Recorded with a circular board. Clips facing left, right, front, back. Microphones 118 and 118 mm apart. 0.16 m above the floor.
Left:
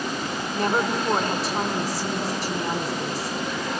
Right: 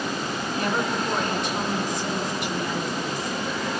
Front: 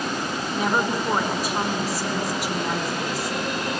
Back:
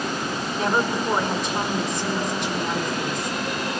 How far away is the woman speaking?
About 1.8 m.